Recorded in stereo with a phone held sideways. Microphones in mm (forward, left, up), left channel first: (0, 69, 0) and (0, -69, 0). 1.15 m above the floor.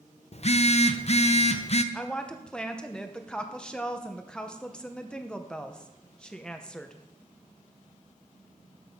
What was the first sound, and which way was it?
A phone buzzing, 50° left (ahead or behind).